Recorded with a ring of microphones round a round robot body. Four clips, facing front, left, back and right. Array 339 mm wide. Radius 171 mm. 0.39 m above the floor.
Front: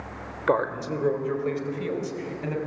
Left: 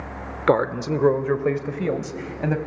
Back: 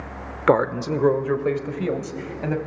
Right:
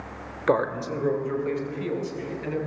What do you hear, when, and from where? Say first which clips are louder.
0.5 s a man speaking: left 4 dB, back 5 dB; 145° left, 1.0 m; by 2.6 s 115° left, 2.5 m